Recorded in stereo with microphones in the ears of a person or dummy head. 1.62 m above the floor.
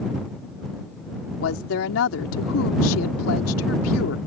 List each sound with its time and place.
1.4 s a woman speaking: 85° left